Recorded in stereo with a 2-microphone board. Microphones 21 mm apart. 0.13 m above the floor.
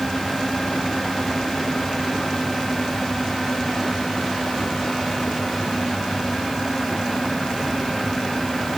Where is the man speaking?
No man speaking in this recording.